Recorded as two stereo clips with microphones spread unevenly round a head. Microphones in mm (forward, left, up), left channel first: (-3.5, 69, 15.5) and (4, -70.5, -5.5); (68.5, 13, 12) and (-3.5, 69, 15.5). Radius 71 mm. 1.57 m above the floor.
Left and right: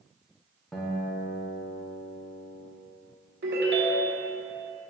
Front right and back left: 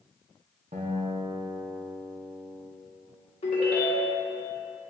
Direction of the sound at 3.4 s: 70° right.